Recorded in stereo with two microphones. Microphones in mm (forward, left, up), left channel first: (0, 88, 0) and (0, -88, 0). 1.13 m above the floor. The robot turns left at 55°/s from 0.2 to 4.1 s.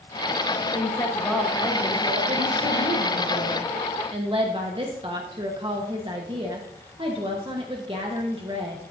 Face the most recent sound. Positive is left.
turn(degrees=-150)